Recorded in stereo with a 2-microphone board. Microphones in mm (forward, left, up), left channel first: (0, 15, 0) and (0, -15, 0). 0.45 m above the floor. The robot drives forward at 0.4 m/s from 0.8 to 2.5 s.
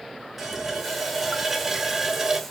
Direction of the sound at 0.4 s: 10° right (ahead or behind).